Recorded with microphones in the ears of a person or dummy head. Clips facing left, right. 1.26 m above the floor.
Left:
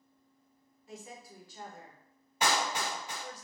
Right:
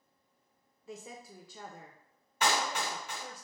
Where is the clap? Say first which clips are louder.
Even; 15° left (ahead or behind), 1.9 m.